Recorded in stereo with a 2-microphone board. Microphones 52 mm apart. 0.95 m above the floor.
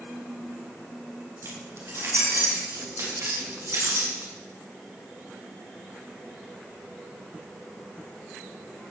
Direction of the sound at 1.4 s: 60° right (ahead or behind).